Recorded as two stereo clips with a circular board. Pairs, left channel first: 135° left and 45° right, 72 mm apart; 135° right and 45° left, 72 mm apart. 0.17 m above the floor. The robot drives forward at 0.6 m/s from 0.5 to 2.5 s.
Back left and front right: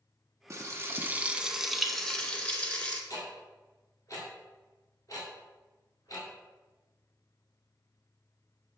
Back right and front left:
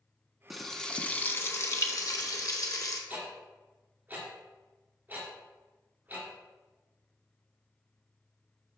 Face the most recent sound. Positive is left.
turn(degrees=105)